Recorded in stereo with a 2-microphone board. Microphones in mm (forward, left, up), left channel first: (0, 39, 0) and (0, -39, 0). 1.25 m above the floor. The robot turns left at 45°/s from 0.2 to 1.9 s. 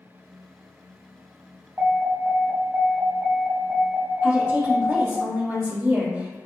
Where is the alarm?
30° right (ahead or behind), 1.7 m; by 5.2 s 35° right (ahead or behind), 1.7 m.